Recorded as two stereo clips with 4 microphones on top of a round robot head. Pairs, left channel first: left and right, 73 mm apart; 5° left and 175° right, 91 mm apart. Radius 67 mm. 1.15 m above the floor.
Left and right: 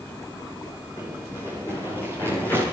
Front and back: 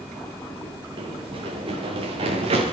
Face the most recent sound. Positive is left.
turn(degrees=165)